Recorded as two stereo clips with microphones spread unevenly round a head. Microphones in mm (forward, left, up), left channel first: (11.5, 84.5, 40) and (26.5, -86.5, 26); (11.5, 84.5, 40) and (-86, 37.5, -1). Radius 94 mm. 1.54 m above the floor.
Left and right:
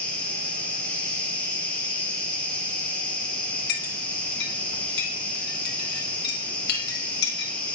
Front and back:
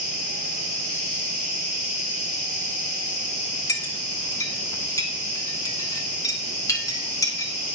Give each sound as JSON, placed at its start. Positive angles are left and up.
{"t": 0.0, "sound": "an insect", "azimuth_deg": 15, "distance_m": 1.7}
{"t": 3.7, "sound": "a clink", "azimuth_deg": 70, "distance_m": 1.3}